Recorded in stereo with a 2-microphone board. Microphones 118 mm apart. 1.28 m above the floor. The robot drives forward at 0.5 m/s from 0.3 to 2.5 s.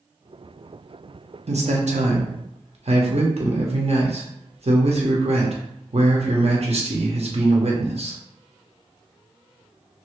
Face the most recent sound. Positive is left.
turn(degrees=-65)  # may be behind; listen again after turning